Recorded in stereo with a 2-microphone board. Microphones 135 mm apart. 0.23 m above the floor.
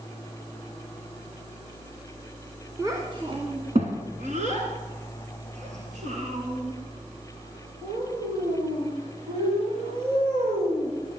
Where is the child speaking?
25° right (ahead or behind), 1.7 m; by 10.9 s 50° right (ahead or behind), 10 m.